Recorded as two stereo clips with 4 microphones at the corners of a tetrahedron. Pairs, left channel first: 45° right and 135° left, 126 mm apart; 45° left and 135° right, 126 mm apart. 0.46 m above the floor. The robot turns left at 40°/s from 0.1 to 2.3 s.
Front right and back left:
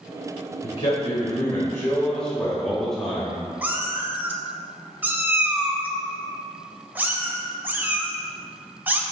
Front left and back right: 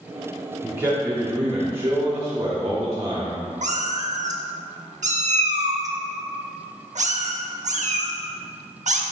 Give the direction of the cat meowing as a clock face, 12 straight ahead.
5 o'clock.